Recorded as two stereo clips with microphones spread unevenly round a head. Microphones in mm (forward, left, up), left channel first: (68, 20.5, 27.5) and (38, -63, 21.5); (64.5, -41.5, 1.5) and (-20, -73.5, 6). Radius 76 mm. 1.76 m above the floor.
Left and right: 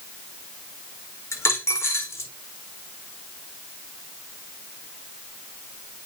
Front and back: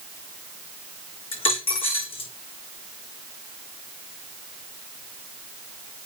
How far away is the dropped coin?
About 5 m.